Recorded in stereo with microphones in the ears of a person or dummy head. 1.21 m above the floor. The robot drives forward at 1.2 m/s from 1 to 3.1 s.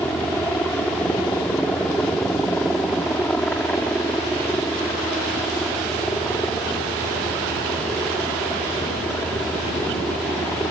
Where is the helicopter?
5° left (ahead or behind).